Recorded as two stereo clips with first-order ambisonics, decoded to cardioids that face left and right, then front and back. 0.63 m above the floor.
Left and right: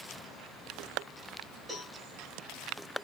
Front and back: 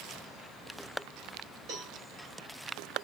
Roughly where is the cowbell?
Behind.